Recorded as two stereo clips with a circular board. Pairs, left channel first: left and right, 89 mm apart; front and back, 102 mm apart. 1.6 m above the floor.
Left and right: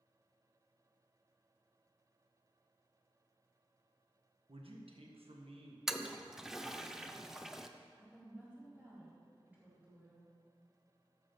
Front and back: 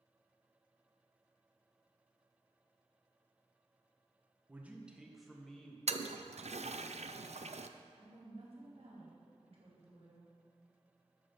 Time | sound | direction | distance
4.5 | a man speaking | 105° right | 1.6 m
5.9 | a toilet flushing | 175° right | 0.5 m
7.9 | a woman speaking | 165° right | 4.5 m